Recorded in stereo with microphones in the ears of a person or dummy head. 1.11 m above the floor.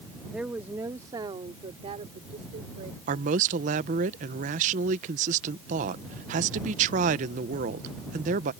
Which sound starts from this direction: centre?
A woman speaking, at 0.3 s.